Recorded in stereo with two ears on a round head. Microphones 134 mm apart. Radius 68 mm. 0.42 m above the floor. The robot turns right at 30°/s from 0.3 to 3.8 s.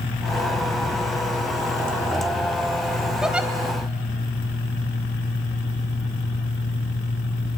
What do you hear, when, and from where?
3.2 s a giggle: 5° right (ahead or behind), 1.3 m; by 3.5 s 10° right (ahead or behind), 1.3 m